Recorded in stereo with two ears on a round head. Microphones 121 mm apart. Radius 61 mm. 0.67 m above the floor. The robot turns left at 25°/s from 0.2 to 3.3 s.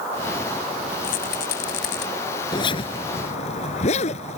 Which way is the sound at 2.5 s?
35° left (ahead or behind).